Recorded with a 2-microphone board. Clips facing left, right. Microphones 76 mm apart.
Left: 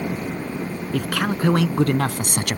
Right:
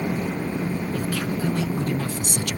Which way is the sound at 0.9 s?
70° left (ahead or behind).